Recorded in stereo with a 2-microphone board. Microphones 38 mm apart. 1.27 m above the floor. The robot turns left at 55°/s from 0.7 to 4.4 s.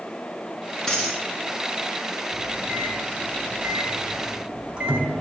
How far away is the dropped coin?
About 3.5 m.